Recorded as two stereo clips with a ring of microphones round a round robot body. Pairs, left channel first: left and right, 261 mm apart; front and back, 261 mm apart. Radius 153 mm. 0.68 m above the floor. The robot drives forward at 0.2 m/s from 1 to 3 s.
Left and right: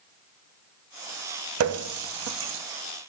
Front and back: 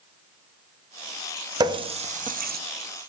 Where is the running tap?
105° right, 0.5 m; by 2.6 s 125° right, 0.6 m.